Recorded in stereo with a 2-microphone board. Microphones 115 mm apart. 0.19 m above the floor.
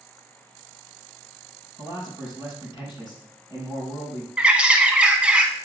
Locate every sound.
1.8 s a man speaking: 45° left (ahead or behind), 4 m
4.4 s a bird: 10° right (ahead or behind), 0.8 m